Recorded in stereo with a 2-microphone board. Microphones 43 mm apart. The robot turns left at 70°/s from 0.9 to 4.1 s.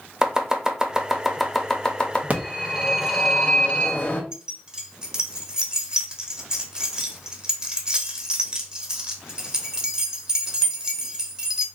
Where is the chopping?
15° right (ahead or behind), 0.6 m; by 2.2 s 25° left (ahead or behind), 0.6 m.